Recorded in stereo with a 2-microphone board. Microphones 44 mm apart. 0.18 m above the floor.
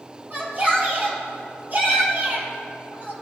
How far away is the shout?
About 4.5 m.